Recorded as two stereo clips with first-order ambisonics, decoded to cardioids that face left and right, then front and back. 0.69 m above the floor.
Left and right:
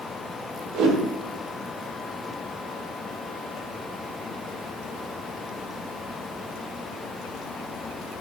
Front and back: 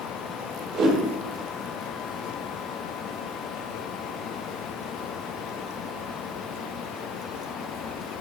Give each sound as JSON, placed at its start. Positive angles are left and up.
{"t": 0.7, "sound": "a whoosh", "azimuth_deg": -125, "distance_m": 1.9}